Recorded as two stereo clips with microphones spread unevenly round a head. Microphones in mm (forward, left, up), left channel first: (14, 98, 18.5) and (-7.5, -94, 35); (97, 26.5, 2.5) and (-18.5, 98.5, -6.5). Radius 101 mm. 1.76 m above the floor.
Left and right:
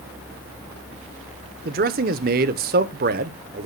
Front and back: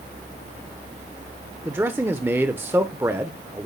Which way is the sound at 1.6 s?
135° right.